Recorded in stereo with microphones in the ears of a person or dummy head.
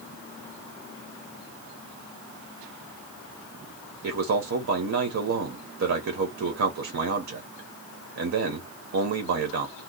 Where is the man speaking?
70° right (ahead or behind), 0.9 m.